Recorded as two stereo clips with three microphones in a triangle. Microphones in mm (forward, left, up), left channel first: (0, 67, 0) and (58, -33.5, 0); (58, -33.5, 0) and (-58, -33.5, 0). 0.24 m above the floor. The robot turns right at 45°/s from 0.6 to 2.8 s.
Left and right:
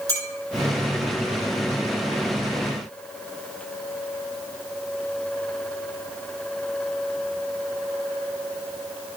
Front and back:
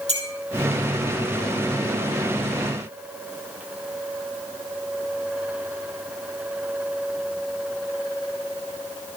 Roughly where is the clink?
Behind.